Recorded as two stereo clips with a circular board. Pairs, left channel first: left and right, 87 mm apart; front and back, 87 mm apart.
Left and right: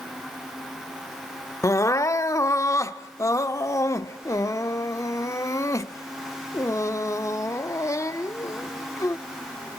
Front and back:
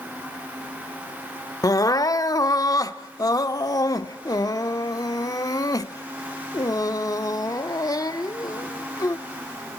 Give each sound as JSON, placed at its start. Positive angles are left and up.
{"t": 1.6, "sound": "crying", "azimuth_deg": 40, "distance_m": 0.8}